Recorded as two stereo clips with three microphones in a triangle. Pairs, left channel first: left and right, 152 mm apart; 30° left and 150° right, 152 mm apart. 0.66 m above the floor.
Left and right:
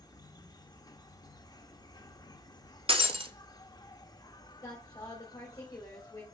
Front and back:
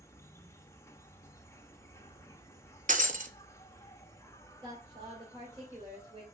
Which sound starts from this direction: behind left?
A woman speaking, at 4.6 s.